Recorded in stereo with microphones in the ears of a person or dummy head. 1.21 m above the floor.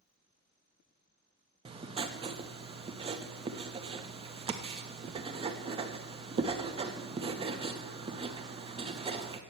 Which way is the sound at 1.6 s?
30° right (ahead or behind).